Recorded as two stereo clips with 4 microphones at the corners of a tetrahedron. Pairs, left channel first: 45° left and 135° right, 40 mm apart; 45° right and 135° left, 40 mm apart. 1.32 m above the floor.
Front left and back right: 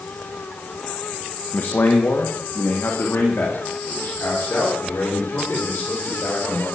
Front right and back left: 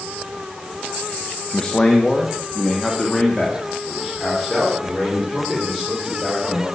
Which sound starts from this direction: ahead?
A man speaking, at 1.5 s.